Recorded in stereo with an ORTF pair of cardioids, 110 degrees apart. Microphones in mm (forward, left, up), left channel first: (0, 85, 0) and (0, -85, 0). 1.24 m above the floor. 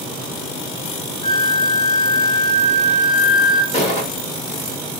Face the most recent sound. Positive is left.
turn(degrees=40)